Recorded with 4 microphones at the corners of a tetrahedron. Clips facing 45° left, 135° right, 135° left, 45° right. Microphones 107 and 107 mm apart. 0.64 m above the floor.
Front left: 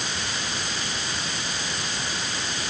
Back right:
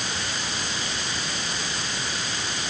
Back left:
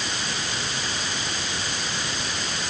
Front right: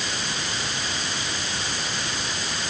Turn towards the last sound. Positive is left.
No sound to turn to.